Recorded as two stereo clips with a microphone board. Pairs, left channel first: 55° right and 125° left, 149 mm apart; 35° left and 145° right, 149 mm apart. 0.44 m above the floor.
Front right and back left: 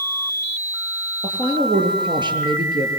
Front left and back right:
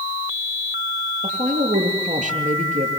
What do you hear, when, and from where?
1.2 s a woman speaking: 175° right, 7 m